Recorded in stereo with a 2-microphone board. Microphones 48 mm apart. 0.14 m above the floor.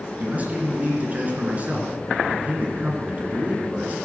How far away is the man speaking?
About 2 m.